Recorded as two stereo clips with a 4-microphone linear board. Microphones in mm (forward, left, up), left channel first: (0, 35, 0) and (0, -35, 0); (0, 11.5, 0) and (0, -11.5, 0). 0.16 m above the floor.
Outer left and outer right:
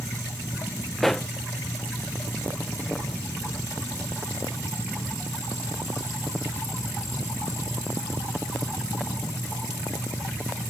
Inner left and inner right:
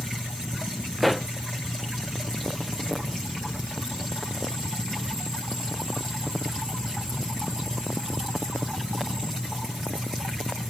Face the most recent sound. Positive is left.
turn(degrees=0)  # may be behind; listen again after turning